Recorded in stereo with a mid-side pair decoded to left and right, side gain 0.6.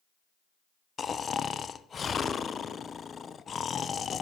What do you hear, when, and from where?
1.0 s snoring: 30° left, 0.7 m